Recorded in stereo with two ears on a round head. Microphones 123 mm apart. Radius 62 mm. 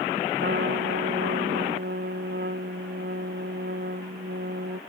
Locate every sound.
0.4 s a trumpet: 85° right